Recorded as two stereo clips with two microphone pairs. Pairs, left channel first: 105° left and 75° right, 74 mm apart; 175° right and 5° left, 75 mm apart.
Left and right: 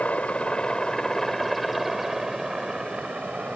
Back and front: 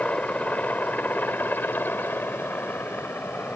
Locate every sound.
0.0 s a helicopter: 150° left; by 3.6 s 135° right